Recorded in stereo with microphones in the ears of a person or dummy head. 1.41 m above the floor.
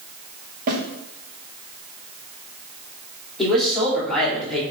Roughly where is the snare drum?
Right.